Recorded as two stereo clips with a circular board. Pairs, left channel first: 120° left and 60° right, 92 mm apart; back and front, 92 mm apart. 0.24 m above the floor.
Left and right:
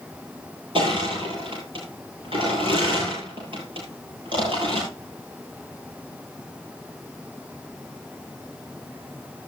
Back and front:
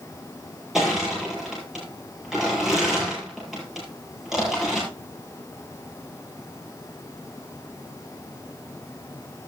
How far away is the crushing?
About 7.5 m.